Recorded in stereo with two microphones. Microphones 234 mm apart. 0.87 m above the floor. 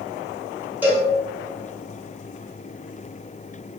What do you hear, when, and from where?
0.8 s a cowbell: 5° right (ahead or behind), 1.8 m